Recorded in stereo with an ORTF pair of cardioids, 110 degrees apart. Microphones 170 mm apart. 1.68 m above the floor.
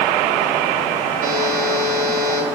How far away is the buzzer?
About 4.5 m.